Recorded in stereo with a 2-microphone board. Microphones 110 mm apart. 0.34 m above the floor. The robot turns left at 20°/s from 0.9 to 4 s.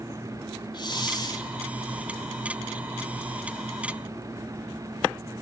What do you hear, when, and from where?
0.7 s a hiss: 45° left (ahead or behind), 1.5 m; by 1.5 s 40° left (ahead or behind), 1.5 m